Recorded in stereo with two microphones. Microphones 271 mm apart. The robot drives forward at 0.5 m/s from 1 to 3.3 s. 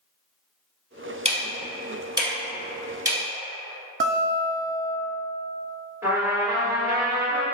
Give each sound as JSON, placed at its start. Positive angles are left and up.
{"t": 1.2, "sound": "ticking", "side_deg": -25, "distance_m": 0.7}
{"t": 4.0, "sound": "a guitar", "side_deg": -50, "distance_m": 0.6}
{"t": 6.0, "sound": "a trumpet", "side_deg": -10, "distance_m": 1.9}